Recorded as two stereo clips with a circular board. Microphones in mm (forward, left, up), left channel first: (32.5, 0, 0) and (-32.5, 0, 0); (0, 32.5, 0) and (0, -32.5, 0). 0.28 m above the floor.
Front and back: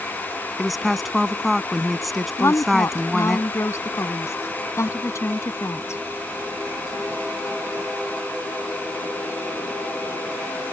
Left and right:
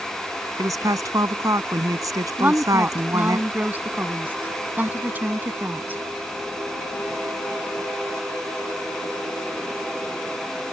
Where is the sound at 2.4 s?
30° right.